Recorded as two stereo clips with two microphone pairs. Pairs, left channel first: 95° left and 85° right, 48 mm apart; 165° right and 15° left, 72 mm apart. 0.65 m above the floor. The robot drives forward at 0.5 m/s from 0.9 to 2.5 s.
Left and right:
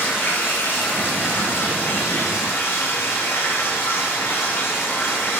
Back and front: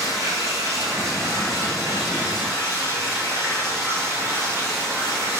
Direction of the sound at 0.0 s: 60° left.